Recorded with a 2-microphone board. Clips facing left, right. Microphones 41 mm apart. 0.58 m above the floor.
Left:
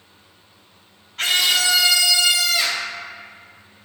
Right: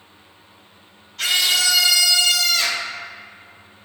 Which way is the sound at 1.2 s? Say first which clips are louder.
Left 1 dB; 40° left (ahead or behind).